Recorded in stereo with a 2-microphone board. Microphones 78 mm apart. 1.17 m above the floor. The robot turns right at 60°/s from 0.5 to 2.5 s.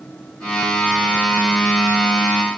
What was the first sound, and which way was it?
Only background noise.